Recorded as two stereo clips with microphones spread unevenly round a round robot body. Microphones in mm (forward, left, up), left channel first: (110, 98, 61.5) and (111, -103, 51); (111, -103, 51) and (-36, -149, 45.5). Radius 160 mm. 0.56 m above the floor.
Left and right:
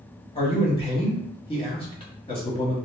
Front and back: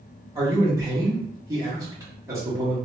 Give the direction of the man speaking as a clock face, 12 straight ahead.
7 o'clock.